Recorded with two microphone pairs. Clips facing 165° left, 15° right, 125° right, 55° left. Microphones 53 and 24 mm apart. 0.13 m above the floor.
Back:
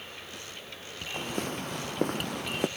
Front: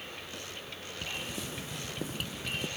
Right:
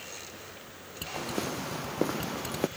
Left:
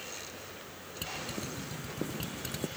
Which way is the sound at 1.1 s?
150° right.